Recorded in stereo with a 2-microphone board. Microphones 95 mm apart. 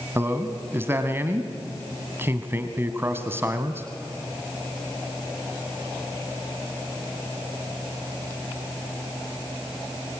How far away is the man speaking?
About 1.4 m.